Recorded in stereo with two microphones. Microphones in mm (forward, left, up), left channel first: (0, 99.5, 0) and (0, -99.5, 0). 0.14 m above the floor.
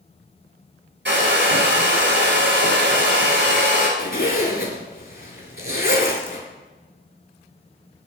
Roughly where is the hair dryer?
Right.